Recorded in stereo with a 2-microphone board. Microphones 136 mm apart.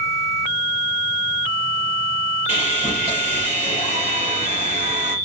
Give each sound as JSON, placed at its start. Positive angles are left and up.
{"t": 2.5, "sound": "sawing", "side_deg": -55, "distance_m": 3.5}